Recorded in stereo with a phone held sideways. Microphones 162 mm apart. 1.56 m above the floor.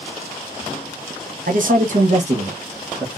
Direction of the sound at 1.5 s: 55° right (ahead or behind).